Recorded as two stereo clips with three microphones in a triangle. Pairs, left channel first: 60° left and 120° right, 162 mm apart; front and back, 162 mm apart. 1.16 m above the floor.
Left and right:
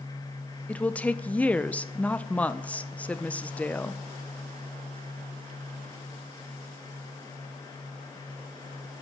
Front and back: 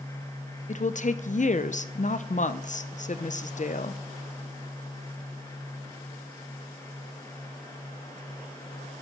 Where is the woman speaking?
20° right, 0.5 m.